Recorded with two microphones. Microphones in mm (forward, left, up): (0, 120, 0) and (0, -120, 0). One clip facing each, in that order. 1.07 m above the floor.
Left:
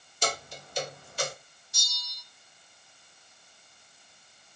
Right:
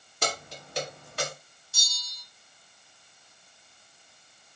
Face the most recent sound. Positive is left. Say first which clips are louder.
# even
turn(degrees=15)  # may be behind; listen again after turning